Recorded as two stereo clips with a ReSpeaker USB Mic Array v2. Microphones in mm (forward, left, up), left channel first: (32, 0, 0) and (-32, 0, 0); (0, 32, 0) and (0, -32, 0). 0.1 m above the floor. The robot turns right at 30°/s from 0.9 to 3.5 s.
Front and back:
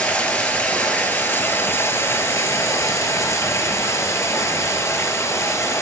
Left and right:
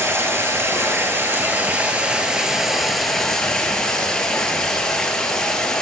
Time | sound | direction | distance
0.0 | running water | 60° right | 1.0 m